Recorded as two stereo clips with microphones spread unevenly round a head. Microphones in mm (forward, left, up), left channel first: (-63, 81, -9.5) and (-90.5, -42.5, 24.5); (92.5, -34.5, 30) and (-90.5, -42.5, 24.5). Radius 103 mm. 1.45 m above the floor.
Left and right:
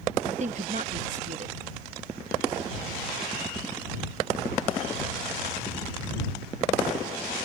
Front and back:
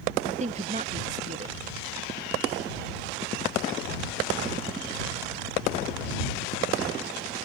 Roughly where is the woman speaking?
Behind right.